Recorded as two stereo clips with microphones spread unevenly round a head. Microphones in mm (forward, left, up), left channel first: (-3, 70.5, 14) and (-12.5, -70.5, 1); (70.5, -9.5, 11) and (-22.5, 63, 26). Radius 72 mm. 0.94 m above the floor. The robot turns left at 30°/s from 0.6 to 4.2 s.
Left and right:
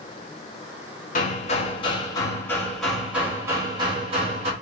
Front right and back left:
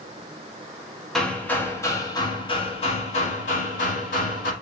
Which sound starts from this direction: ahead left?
Hammering, at 1.1 s.